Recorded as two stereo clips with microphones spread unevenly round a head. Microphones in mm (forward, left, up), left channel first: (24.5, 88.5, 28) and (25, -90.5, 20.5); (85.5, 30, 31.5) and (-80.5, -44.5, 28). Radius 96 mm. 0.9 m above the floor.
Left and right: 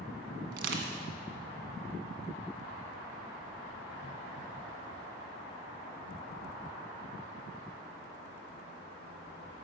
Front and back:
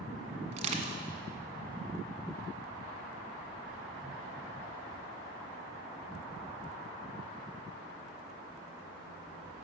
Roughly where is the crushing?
Right.